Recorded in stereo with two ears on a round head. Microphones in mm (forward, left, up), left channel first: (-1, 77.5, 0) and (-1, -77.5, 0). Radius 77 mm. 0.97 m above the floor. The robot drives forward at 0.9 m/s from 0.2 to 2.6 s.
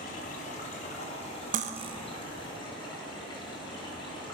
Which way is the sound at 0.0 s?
55° left (ahead or behind).